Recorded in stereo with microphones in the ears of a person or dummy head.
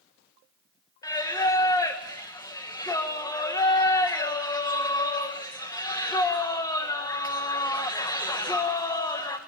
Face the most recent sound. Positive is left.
turn(degrees=15)  # may be behind; listen again after turning